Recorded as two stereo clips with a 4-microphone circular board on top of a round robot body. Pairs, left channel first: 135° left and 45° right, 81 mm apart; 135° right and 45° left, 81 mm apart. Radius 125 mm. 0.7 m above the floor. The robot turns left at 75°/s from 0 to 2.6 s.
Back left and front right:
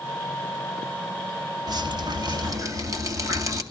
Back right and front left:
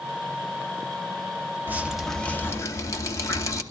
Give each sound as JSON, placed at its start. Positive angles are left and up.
{"t": 1.7, "sound": "dripping", "azimuth_deg": -20, "distance_m": 2.0}